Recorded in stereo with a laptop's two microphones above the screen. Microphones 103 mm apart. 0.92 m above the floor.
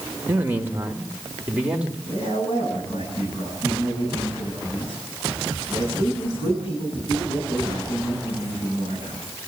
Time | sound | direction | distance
0.3 | a man speaking | 20° right (ahead or behind) | 1.4 m
2.1 | a man speaking | 85° left | 10 m